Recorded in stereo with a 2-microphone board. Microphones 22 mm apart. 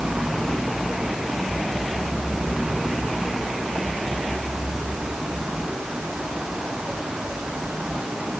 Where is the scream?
No scream in this recording.